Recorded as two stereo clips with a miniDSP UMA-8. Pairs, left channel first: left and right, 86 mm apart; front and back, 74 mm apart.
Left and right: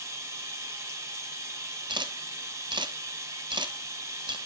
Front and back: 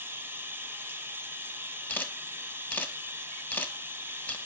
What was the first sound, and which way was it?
Running water, 135° right.